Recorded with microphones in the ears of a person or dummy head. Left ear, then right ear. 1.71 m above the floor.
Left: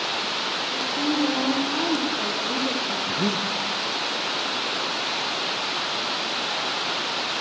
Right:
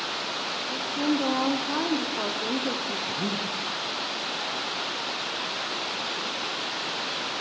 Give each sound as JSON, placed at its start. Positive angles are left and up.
{"t": 0.7, "sound": "a woman speaking", "side_deg": -35, "distance_m": 0.6}
{"t": 3.1, "sound": "breathing", "side_deg": 30, "distance_m": 0.6}